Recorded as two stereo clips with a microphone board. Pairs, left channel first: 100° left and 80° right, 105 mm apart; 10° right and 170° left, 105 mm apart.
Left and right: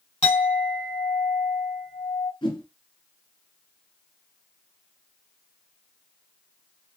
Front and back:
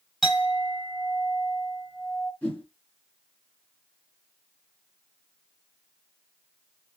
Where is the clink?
75° left, 2.5 m.